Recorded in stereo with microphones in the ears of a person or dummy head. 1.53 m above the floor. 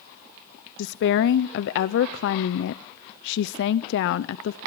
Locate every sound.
0.8 s a woman speaking: 65° left (ahead or behind), 0.6 m